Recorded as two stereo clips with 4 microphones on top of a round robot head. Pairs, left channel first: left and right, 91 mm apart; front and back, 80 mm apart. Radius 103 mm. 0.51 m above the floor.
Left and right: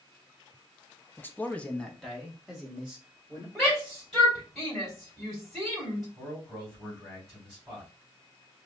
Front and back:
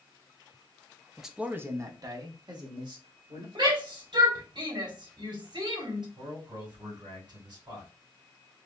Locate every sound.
1.2 s a man speaking: 90° left, 0.8 m; by 3.5 s 170° right, 2 m
3.5 s a shout: straight behind, 2.5 m
6.2 s a man speaking: 175° left, 2.5 m